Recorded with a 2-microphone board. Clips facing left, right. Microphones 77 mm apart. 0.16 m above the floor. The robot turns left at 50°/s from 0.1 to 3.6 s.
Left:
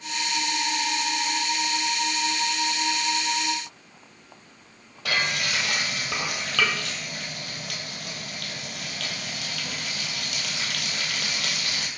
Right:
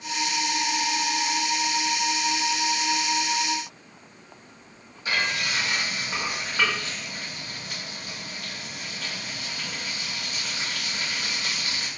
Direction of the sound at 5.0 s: 80° left.